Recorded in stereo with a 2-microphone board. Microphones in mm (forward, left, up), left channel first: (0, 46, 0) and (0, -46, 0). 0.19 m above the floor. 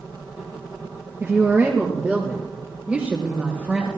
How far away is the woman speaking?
About 4 m.